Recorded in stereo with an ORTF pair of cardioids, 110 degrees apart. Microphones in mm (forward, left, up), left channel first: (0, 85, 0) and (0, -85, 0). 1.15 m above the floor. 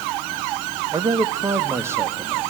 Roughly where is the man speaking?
Ahead.